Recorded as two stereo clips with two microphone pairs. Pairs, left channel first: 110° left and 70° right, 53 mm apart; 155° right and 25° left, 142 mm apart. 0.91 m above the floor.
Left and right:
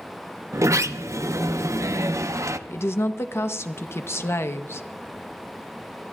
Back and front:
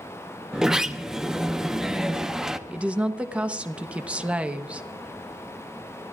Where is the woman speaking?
100° left, 0.8 m.